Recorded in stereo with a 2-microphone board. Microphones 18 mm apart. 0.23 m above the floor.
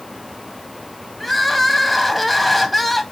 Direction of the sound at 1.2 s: Centre (ahead or behind).